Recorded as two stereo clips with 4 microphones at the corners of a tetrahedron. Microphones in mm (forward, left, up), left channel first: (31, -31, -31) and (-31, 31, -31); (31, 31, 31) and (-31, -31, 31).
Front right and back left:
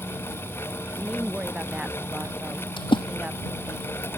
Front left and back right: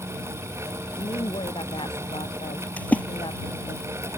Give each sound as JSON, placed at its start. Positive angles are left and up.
{"t": 1.0, "sound": "a woman speaking", "azimuth_deg": 60}
{"t": 2.8, "sound": "a splash", "azimuth_deg": -25}